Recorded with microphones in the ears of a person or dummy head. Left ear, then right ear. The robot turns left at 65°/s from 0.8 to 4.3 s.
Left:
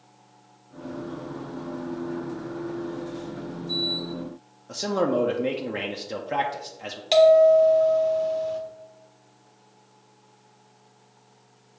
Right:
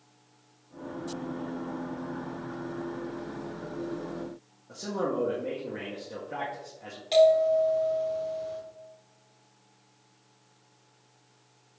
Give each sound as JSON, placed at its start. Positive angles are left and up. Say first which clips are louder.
{"t": 4.7, "sound": "a man speaking", "louder": "left 7 dB", "side_deg": 45, "distance_m": 0.5}
{"t": 7.1, "sound": "a bell", "louder": "left 6 dB", "side_deg": 25, "distance_m": 1.4}